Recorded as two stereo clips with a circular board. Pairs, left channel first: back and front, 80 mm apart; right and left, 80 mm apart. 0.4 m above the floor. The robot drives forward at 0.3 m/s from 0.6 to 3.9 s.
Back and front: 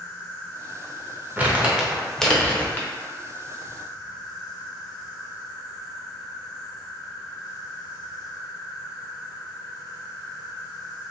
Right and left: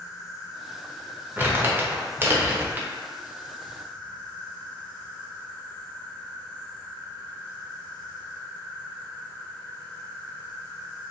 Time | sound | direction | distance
0.0 | an insect | 115° right | 0.8 m
1.4 | crumpling | 50° left | 0.6 m